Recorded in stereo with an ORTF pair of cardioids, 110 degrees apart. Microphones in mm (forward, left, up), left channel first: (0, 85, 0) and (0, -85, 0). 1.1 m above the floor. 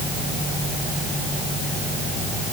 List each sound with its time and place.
Only background noise.